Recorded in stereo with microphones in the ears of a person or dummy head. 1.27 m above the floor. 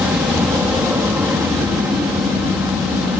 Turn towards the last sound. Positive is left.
turn(degrees=-10)  # may be behind; listen again after turning